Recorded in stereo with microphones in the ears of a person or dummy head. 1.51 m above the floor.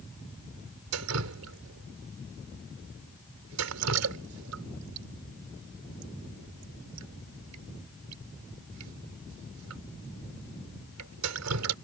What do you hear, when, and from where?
0.9 s dripping: 85° right